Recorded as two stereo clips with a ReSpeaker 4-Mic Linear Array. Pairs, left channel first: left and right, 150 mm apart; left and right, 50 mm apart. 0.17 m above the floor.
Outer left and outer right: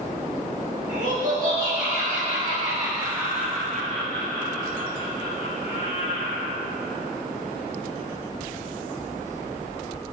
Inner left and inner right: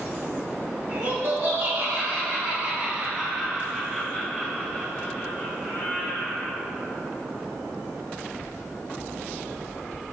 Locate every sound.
0.9 s laughter: 60° right (ahead or behind), 1.9 m; by 6.6 s 60° left (ahead or behind), 2.0 m